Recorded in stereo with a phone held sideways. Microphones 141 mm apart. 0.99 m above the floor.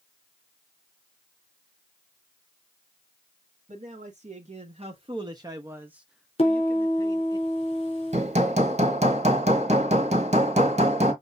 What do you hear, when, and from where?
3.7 s a man speaking: 60° right (ahead or behind), 1.5 m; by 7.4 s 30° left (ahead or behind), 1.2 m
6.4 s a piano: 45° left (ahead or behind), 3.5 m
8.1 s hammering: 50° right (ahead or behind), 1.5 m